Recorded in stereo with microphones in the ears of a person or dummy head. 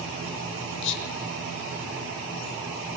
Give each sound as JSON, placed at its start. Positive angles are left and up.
{"t": 0.8, "sound": "whispering", "side_deg": 70, "distance_m": 5.0}